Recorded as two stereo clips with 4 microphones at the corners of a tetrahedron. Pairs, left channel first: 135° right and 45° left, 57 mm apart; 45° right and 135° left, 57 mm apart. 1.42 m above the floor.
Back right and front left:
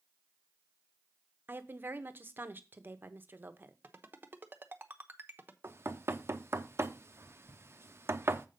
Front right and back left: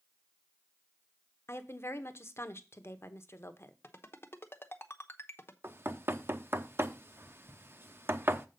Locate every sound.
1.5 s a woman speaking: 10° right, 0.8 m
3.8 s a ringtone: 5° right, 0.8 m
5.6 s knocking: 90° left, 0.6 m